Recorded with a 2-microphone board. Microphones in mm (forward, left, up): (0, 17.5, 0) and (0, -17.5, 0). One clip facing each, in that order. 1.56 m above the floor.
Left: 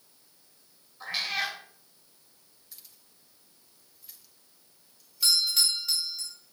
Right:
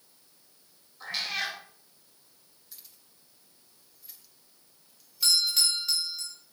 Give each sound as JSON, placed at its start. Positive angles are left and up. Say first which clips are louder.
{"t": 1.0, "sound": "a cat meowing", "louder": "left 1 dB", "side_deg": 10, "distance_m": 3.0}
{"t": 2.7, "sound": "keys jangling", "louder": "even", "side_deg": 0, "distance_m": 1.4}
{"t": 5.2, "sound": "a doorbell", "louder": "even", "side_deg": 5, "distance_m": 2.5}